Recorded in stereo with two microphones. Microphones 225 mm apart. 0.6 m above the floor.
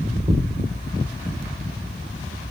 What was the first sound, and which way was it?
A thud, 25° right (ahead or behind).